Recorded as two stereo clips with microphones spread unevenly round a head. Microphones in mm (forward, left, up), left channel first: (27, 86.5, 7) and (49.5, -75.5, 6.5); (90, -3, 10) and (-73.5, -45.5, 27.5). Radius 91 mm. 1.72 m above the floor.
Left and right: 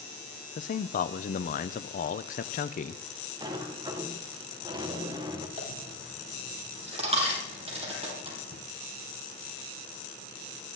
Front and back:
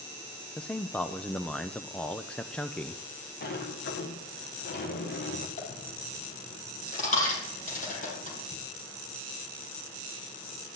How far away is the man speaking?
About 0.7 m.